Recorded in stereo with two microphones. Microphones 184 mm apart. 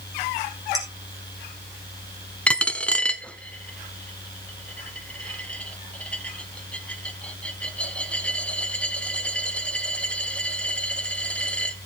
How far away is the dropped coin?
About 0.7 m.